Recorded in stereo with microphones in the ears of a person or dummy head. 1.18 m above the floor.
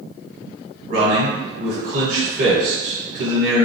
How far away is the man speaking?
About 1.2 m.